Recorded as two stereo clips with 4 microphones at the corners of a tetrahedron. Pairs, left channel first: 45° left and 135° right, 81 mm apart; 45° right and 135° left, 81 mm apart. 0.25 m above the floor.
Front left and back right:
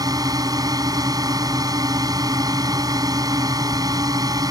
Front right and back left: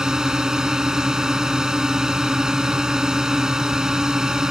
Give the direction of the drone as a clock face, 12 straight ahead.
5 o'clock.